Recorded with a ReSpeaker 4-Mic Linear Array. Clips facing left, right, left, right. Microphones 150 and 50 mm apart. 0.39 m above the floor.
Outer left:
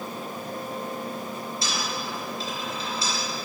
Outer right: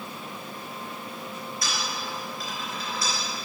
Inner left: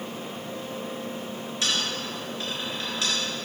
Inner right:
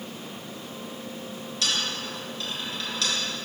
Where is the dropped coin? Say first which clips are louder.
Outer left 1 dB, even; 25° left (ahead or behind), 2.5 m.